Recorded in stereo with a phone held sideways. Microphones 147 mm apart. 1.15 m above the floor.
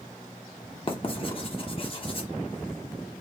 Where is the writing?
40° left (ahead or behind), 0.8 m.